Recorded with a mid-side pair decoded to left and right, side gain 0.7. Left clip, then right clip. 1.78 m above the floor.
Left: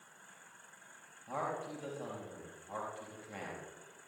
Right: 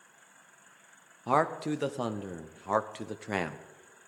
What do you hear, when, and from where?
1.3 s a man speaking: 70° right, 0.9 m